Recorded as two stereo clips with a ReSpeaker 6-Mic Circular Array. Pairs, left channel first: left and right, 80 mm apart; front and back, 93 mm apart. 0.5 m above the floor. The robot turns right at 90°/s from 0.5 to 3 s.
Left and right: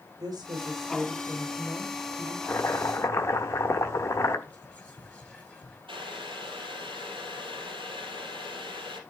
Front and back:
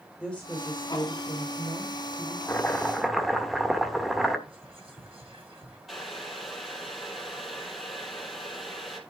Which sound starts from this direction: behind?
Whispering, at 4.5 s.